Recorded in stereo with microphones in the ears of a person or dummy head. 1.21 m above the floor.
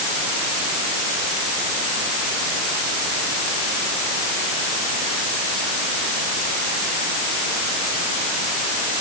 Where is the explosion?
No explosion in this recording.